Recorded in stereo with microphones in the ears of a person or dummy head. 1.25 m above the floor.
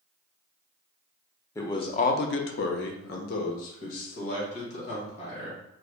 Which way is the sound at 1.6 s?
20° left (ahead or behind).